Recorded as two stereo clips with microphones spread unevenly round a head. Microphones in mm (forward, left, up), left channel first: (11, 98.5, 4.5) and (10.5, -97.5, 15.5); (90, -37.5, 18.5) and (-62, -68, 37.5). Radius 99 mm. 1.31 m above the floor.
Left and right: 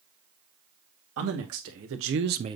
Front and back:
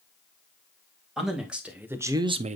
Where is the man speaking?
80° right, 2.0 m; by 2.6 s 160° right, 0.5 m.